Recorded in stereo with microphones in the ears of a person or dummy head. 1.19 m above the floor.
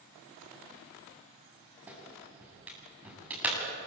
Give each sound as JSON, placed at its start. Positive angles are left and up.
{"t": 1.9, "sound": "a clap", "side_deg": -15, "distance_m": 9.0}